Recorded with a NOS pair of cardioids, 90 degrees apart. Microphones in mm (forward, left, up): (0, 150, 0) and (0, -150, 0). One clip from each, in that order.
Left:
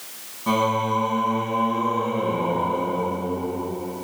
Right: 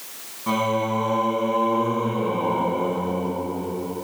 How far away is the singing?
About 9.5 m.